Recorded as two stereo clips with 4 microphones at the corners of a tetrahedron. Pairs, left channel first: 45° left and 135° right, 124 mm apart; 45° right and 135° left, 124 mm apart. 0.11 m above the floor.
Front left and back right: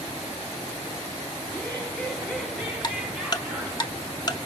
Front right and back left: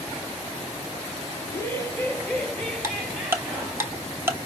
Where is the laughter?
10° right, 1.8 m; by 3.8 s 165° right, 1.8 m.